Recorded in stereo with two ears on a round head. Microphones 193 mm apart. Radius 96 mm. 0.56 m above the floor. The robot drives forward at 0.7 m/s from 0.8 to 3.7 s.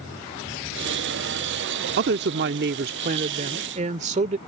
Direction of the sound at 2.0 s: 50° right (ahead or behind).